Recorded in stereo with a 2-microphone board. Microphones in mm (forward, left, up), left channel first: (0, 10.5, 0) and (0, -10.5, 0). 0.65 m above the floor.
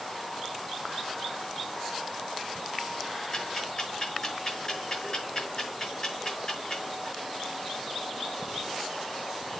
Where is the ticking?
30° left (ahead or behind), 6 m.